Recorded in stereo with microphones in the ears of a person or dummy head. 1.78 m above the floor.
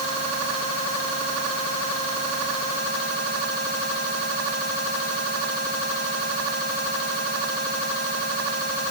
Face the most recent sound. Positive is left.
No sound to turn to.